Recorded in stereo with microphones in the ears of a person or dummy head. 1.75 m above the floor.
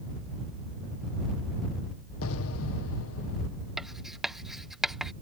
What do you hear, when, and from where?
2.2 s an explosion: 85° left
3.8 s writing: 5° right (ahead or behind)